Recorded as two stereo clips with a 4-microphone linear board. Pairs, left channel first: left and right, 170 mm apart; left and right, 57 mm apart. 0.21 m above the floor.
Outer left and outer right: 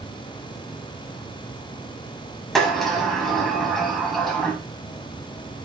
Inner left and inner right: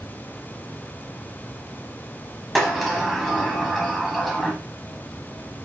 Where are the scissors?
No scissors in this recording.